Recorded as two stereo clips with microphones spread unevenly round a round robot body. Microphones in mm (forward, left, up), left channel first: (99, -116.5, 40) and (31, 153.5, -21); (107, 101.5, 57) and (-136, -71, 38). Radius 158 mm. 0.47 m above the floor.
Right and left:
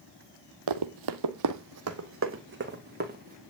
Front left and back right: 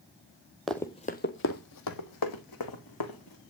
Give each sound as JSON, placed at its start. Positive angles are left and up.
{"t": 0.7, "sound": "running footsteps", "azimuth_deg": 125, "distance_m": 1.1}